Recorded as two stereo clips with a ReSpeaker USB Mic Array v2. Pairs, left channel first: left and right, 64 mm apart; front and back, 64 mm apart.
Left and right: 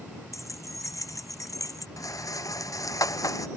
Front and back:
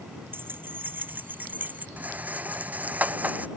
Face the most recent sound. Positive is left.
turn(degrees=115)